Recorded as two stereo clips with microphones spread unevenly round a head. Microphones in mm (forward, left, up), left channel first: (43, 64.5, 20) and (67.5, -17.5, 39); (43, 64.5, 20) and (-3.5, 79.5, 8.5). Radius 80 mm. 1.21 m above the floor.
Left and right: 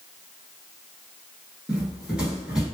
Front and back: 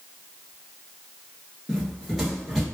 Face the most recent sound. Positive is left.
turn(degrees=-80)